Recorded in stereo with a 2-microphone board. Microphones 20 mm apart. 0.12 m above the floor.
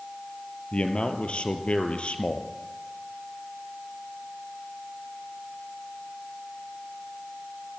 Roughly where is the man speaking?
Left.